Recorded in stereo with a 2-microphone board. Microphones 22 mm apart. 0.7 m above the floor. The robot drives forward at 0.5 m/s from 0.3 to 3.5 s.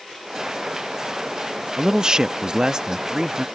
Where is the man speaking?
30° right (ahead or behind); by 3.5 s 25° right (ahead or behind).